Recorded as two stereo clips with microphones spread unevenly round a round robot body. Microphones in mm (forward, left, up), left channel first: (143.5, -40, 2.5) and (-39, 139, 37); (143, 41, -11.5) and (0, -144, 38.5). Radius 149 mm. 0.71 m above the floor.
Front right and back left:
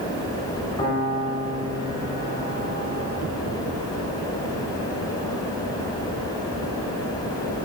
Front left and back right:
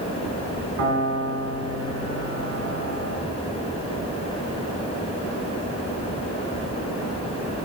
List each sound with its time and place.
0.8 s a piano: 125° right, 2.5 m